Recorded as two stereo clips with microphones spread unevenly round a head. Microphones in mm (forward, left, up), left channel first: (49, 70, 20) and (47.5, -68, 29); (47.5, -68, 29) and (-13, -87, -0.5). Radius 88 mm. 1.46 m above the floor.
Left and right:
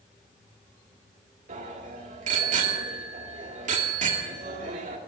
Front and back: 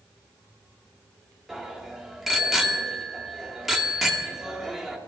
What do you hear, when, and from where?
1.5 s a bicycle bell: 70° right, 2.5 m